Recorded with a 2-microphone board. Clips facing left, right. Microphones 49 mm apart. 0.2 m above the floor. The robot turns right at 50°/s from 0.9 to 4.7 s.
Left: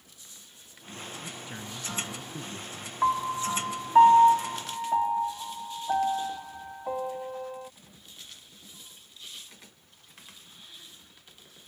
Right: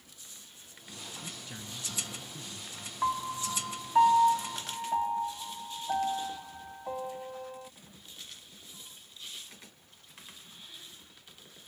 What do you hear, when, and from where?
1.2 s a man speaking: 10° left; by 2.9 s 95° left
3.0 s a piano: 20° left (ahead or behind)